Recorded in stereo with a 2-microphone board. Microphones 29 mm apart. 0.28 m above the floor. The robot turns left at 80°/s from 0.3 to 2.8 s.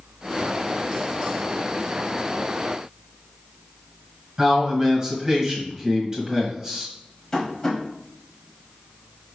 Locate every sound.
4.4 s a man speaking: 20° right (ahead or behind), 1.4 m
7.3 s tapping: 15° left (ahead or behind), 1.4 m